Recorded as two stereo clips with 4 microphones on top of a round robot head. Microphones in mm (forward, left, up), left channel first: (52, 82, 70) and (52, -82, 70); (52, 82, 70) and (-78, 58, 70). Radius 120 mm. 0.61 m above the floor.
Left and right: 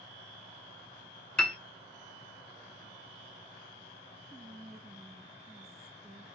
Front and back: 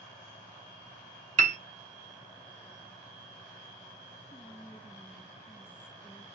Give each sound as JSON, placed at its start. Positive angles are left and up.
{"t": 1.4, "sound": "a piano", "azimuth_deg": 175, "distance_m": 0.6}
{"t": 4.3, "sound": "whispering", "azimuth_deg": -40, "distance_m": 1.1}